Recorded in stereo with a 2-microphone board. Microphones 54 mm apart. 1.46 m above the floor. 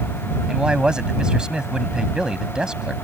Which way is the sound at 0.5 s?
15° right (ahead or behind).